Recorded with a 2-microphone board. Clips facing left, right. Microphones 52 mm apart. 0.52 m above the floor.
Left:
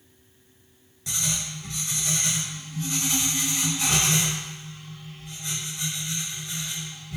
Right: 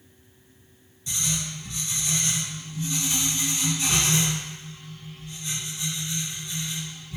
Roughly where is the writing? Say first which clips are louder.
Even; left.